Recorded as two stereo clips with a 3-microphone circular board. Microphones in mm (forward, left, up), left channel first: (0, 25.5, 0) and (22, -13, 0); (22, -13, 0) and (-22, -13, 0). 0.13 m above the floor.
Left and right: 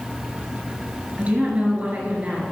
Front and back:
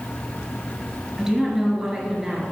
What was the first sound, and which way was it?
A woman speaking, 105° right.